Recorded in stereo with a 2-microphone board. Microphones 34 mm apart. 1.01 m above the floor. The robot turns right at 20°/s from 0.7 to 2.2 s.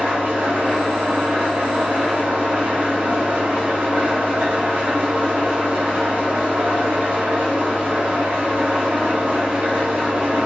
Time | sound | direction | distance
0.0 | an engine running | 75° right | 0.8 m